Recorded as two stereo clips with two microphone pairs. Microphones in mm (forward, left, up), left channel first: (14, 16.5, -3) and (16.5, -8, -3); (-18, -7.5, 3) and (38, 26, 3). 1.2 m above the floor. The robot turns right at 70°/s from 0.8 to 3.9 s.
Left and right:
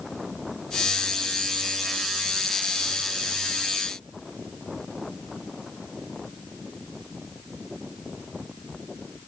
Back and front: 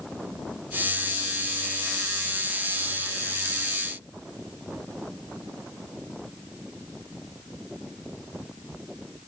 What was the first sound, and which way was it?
Only background noise.